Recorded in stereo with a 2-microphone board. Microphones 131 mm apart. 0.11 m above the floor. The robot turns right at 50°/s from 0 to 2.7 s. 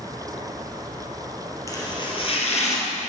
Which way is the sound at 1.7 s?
25° left (ahead or behind).